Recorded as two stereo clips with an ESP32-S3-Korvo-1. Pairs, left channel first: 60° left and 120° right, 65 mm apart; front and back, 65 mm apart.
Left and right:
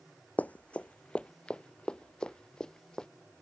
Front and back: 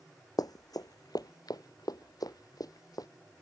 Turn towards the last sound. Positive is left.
turn(degrees=-20)